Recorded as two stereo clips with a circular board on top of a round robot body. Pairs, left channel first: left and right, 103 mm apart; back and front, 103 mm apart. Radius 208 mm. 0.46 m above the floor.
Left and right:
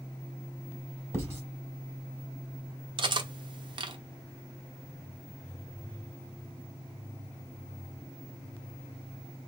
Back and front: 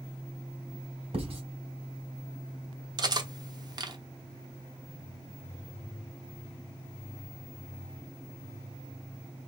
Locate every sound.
1.1 s writing: 25° right, 4 m
3.0 s cutlery clinking: 50° right, 1.1 m